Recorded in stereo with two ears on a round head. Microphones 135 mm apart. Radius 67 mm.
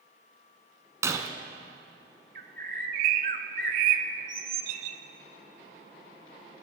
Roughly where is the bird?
Right.